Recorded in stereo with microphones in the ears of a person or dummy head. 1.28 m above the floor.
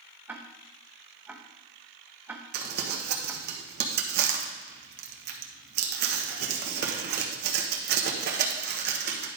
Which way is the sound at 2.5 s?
55° right (ahead or behind).